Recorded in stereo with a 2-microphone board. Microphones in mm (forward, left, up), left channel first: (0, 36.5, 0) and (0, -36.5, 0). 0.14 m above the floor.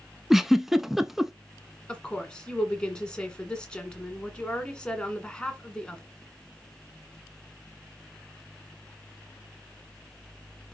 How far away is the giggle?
About 0.5 m.